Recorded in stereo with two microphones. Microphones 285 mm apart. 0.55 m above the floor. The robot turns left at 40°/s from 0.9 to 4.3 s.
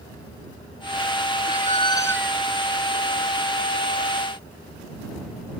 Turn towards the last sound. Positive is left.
turn(degrees=-130)